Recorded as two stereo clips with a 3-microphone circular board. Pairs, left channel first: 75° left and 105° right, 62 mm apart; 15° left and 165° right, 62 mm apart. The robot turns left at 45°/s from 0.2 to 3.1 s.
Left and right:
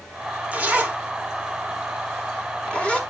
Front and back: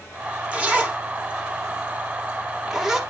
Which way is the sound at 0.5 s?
130° right.